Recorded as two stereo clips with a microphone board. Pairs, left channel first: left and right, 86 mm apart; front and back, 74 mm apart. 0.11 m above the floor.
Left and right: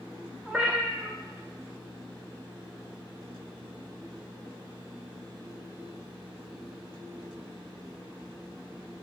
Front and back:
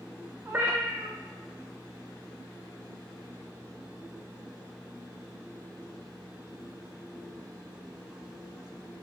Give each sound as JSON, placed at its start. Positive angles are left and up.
{"t": 0.5, "sound": "a cat meowing", "azimuth_deg": -160, "distance_m": 0.6}